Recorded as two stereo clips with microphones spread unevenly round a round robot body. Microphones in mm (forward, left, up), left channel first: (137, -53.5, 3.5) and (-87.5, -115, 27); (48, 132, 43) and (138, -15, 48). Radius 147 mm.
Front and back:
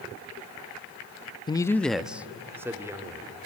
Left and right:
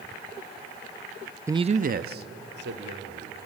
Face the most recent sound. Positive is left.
turn(degrees=-85)